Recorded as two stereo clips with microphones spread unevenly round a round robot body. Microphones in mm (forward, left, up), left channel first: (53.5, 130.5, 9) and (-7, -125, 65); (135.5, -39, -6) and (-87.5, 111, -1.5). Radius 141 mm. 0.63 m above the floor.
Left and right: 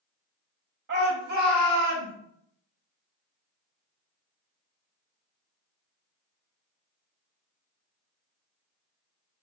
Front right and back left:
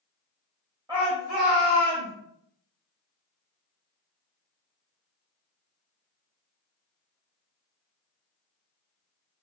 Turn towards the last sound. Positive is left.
turn(degrees=-170)